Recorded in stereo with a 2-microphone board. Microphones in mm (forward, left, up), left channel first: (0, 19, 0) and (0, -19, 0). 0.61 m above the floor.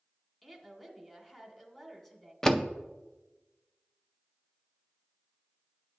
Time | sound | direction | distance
0.4 | a woman speaking | 10° left (ahead or behind) | 2 m
2.4 | a door slam | 15° left (ahead or behind) | 0.5 m